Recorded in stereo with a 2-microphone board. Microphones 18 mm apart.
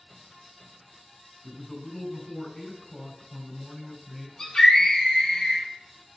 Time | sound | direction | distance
1.4 | a man speaking | 40° left (ahead or behind) | 2 m
4.4 | a scream | 40° left (ahead or behind) | 2.5 m